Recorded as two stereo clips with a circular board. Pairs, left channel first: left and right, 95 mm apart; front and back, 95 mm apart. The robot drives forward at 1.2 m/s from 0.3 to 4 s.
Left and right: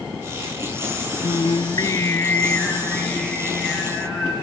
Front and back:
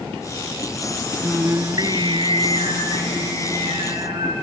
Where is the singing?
90° left, 0.6 m; by 4.3 s 170° left, 3.5 m.